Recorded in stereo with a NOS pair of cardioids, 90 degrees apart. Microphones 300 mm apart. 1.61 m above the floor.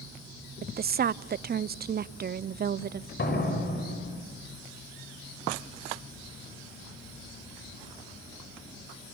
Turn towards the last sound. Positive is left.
turn(degrees=35)